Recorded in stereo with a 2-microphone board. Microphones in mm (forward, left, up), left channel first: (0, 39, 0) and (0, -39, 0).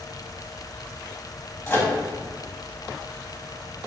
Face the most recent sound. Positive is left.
turn(degrees=25)  # may be behind; listen again after turning